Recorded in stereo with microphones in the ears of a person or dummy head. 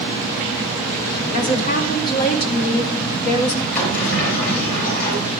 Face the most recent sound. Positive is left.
turn(degrees=45)  # may be behind; listen again after turning